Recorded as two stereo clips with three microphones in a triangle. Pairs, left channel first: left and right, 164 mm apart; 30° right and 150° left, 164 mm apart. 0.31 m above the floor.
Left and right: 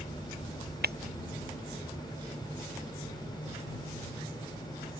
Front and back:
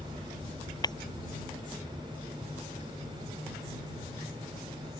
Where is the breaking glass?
95° right.